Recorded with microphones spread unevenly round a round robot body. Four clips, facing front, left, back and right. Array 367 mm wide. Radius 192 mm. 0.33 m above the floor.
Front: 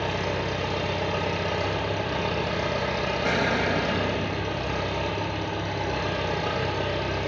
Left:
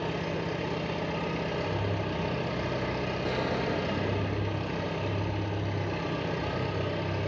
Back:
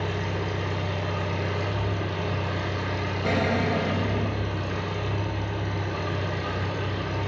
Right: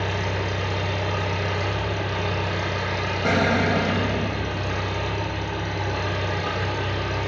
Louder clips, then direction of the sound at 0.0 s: Right 5 dB, front 2 dB; 15° right.